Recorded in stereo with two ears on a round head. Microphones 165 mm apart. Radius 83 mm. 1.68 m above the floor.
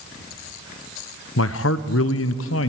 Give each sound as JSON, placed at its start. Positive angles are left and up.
{"t": 1.4, "sound": "a man speaking", "side_deg": 80, "distance_m": 1.1}